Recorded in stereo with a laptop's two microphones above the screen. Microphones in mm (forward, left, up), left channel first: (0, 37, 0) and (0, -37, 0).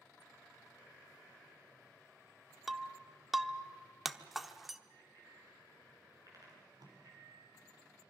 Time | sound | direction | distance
2.7 | breaking glass | 5° right (ahead or behind) | 0.9 m
4.9 | a bicycle bell | 55° right (ahead or behind) | 8.5 m
6.5 | tape being pulled | 60° right (ahead or behind) | 4 m